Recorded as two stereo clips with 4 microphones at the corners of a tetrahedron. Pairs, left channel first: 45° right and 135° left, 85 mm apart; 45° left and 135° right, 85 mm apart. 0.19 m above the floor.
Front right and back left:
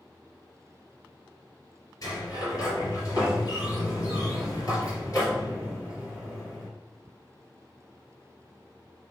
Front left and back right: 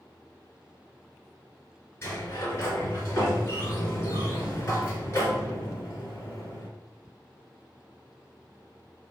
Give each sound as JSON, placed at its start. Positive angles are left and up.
{"t": 2.0, "sound": "a sliding door", "azimuth_deg": -10, "distance_m": 3.0}